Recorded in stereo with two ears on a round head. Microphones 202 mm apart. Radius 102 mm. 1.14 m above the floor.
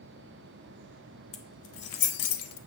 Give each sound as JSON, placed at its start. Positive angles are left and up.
{"t": 1.3, "sound": "keys jangling", "side_deg": 70, "distance_m": 1.4}